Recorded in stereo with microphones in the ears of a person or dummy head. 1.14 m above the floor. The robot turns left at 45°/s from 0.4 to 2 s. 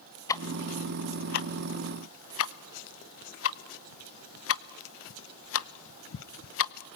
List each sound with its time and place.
0.3 s ticking: 20° left (ahead or behind), 0.7 m; by 6.7 s 70° left (ahead or behind), 0.7 m